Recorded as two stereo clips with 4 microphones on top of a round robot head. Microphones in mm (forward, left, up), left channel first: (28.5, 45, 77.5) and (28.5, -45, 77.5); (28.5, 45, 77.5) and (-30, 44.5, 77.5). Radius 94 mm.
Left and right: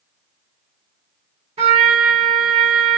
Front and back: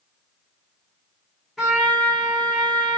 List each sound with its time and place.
1.6 s a trumpet: 85° right, 1.2 m